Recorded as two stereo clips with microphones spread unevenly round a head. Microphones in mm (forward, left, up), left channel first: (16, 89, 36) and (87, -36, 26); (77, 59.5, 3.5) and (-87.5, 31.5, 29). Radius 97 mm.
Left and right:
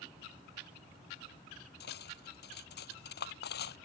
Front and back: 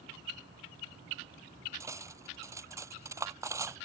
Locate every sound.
1.8 s cutlery clinking: 115° left